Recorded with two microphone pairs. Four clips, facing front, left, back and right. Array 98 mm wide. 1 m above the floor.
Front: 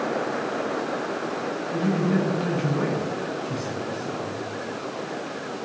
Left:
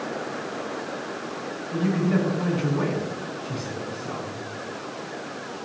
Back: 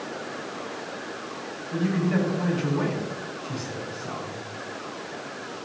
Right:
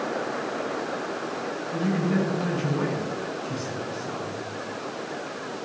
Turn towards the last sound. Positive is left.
turn(degrees=145)